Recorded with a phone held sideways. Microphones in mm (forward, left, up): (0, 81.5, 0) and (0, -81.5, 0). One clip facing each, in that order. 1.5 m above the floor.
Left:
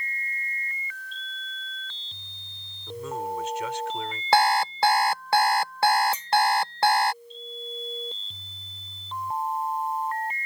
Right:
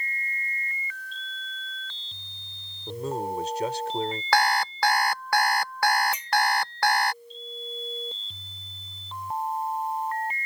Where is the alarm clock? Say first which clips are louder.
Left 4 dB; 25° left (ahead or behind).